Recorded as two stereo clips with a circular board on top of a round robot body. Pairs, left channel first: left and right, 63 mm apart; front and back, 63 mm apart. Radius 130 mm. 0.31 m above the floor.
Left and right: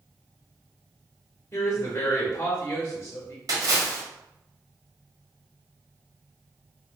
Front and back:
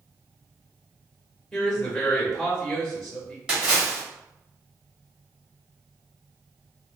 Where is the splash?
100° right, 1.5 m.